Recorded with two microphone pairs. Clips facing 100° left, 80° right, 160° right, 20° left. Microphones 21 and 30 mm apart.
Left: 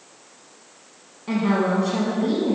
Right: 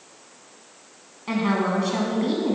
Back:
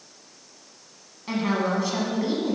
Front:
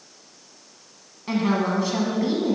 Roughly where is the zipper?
No zipper in this recording.